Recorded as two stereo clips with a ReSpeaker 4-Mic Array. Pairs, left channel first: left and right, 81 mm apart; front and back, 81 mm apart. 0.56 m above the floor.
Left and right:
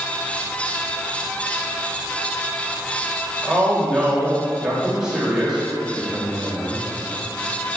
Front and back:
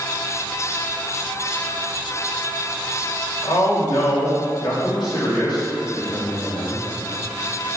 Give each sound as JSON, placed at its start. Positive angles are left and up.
{"t": 3.4, "sound": "a man speaking", "azimuth_deg": -10, "distance_m": 2.5}